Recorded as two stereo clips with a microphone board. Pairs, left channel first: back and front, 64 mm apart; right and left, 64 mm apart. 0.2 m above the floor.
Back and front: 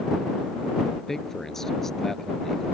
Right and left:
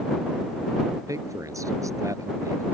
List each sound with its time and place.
1.1 s a man speaking: 95° left